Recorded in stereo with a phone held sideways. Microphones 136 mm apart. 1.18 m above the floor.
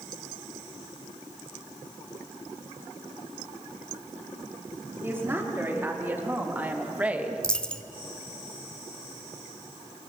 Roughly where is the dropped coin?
Centre.